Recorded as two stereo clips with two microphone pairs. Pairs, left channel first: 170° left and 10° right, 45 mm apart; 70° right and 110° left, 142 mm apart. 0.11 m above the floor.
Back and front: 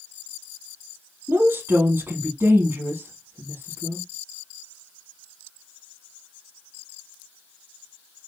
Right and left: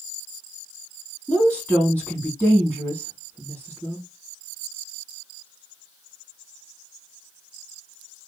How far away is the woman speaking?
About 3 m.